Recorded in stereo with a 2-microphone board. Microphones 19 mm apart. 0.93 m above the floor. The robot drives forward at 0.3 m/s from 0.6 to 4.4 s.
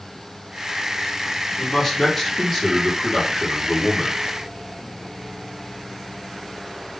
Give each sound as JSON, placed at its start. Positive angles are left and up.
{"t": 1.6, "sound": "a man speaking", "side_deg": 20, "distance_m": 1.7}